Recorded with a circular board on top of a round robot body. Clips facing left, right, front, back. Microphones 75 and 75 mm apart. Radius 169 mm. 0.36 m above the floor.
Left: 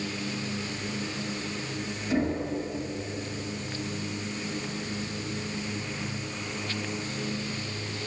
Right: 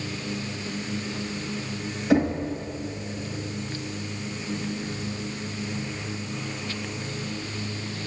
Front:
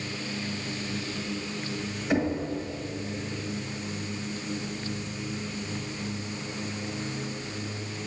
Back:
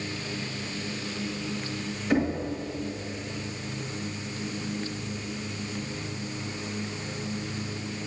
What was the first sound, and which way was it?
Knocking, 85° right.